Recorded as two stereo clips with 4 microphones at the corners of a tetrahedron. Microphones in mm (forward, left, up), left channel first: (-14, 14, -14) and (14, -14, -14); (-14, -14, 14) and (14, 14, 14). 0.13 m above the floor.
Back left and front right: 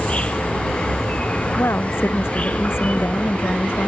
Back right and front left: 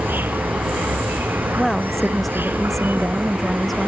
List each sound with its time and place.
0.0 s an insect: 80° left
1.6 s a woman speaking: 140° left